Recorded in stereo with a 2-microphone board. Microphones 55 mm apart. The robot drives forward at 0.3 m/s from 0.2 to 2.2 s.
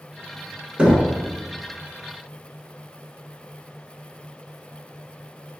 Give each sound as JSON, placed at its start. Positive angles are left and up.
{"t": 0.8, "sound": "knocking", "side_deg": -20, "distance_m": 0.7}